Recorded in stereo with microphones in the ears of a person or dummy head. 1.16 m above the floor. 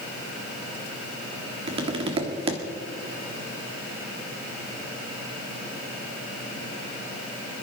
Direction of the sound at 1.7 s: 40° right (ahead or behind).